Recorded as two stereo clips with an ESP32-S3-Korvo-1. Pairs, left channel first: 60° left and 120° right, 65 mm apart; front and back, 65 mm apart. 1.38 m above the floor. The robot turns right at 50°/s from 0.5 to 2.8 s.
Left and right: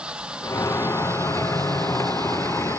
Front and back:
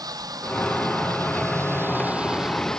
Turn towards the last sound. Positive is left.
turn(degrees=-80)